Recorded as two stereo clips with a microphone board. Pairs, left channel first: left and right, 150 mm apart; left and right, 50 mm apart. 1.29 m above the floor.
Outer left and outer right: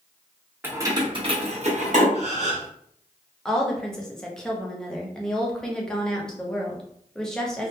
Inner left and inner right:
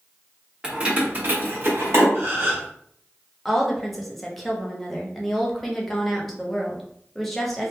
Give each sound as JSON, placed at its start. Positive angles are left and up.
{"t": 0.6, "sound": "keys jangling", "side_deg": -15, "distance_m": 0.7}
{"t": 2.1, "sound": "a gasp", "side_deg": -50, "distance_m": 0.7}
{"t": 3.5, "sound": "a woman speaking", "side_deg": 5, "distance_m": 0.7}